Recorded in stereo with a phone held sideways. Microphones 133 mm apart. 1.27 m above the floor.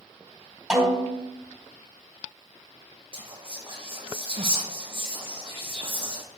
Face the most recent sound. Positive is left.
turn(degrees=-40)  # may be behind; listen again after turning